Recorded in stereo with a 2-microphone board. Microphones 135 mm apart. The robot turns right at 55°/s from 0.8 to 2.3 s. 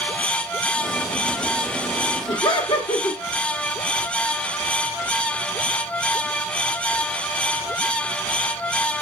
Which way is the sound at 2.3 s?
40° left (ahead or behind).